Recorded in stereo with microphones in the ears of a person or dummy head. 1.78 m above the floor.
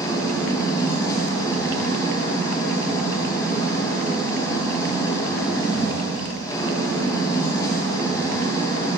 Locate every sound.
0.0 s an engine running: 25° left (ahead or behind), 1.9 m